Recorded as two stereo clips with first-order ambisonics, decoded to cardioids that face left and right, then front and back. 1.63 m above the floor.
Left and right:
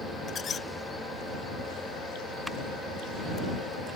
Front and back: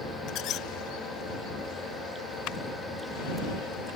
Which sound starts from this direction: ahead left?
A squeak, at 0.3 s.